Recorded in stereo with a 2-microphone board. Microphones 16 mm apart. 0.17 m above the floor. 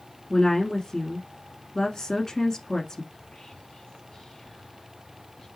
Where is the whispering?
60° left (ahead or behind), 3 m.